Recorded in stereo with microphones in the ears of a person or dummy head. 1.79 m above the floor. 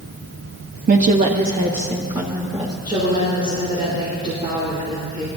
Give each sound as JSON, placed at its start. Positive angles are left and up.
{"t": 0.9, "sound": "a woman speaking", "side_deg": -50, "distance_m": 0.5}
{"t": 2.9, "sound": "a woman speaking", "side_deg": -20, "distance_m": 2.5}